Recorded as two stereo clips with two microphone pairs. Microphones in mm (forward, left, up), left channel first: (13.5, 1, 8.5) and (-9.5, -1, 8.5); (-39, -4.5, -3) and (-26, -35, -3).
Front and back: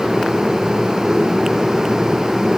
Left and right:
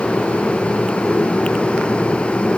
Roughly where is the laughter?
No laughter in this recording.